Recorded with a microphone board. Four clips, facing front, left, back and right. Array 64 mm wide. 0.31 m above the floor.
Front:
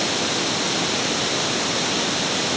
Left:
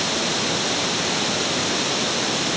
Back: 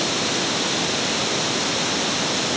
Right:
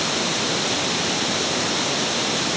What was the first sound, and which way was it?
Only background noise.